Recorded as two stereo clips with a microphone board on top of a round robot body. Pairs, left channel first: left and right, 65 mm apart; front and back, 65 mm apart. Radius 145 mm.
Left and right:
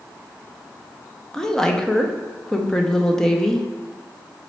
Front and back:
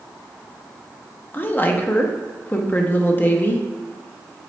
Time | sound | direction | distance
1.3 | a woman speaking | 15° left | 0.8 m